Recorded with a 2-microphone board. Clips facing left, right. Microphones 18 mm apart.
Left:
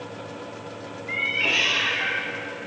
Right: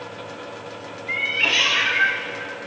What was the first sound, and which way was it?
A cat meowing, 20° right (ahead or behind).